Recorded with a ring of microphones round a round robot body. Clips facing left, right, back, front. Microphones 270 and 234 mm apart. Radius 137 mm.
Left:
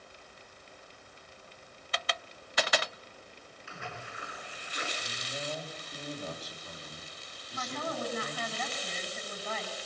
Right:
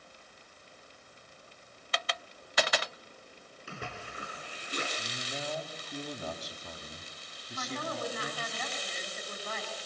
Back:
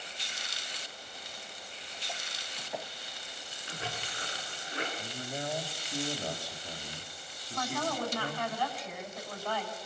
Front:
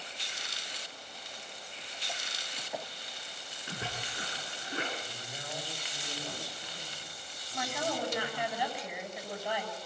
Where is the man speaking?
110° right, 3.5 m.